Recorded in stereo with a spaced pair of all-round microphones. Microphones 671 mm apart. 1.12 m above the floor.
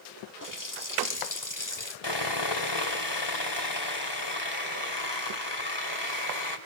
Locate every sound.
0.4 s a running tap: 30° left (ahead or behind), 1.7 m
2.0 s sawing: 35° left (ahead or behind), 2.5 m